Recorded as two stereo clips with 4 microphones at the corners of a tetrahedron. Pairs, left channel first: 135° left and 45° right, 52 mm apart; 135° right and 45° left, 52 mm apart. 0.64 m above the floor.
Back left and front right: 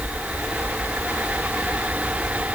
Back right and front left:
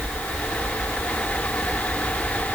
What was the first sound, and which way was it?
Only background noise.